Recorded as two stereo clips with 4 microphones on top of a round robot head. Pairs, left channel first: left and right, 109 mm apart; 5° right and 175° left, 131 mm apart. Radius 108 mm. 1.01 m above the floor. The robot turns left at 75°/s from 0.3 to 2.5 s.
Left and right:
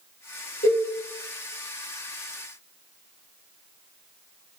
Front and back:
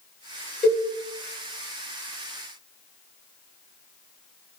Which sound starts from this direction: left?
A cowbell, at 0.6 s.